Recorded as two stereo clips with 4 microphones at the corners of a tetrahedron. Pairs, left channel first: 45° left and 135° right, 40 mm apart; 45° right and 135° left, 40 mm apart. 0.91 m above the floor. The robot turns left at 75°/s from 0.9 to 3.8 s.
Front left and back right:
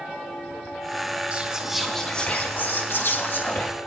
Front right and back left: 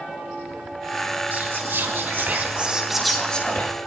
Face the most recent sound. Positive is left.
turn(degrees=-15)